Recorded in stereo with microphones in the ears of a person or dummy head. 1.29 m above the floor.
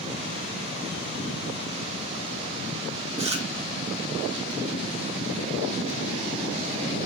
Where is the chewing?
35° right (ahead or behind), 1.2 m.